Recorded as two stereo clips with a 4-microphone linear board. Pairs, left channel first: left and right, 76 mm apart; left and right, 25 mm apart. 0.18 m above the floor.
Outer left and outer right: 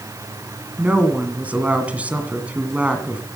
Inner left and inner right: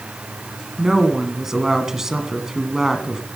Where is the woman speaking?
20° right (ahead or behind), 1.9 m.